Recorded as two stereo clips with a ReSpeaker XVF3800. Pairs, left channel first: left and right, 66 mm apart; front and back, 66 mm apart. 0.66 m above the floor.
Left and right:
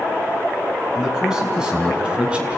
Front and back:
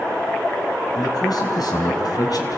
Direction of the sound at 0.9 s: 10° right.